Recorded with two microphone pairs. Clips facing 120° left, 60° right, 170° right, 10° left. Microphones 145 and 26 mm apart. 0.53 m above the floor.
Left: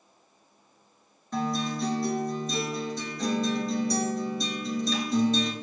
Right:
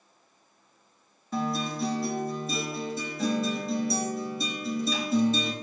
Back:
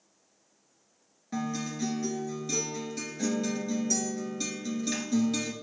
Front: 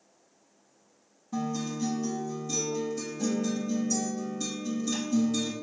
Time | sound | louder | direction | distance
1.3 | a guitar | left 1 dB, front 1 dB | 145° right | 1.2 m